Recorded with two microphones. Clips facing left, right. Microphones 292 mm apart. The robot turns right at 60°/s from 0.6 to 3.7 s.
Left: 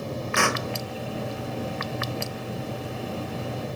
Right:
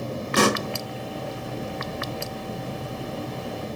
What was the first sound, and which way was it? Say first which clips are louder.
A pop: right 7 dB; 40° right (ahead or behind).